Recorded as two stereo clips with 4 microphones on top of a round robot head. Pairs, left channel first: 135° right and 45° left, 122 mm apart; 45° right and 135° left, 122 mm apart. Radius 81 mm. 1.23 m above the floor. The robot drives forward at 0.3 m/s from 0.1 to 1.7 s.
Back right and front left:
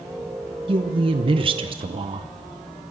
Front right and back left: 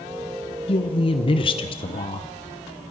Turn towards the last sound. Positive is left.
turn(degrees=0)